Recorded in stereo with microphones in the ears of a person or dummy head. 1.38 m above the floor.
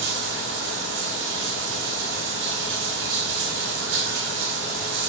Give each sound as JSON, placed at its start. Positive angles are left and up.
{"t": 0.0, "sound": "running water", "side_deg": -65, "distance_m": 1.5}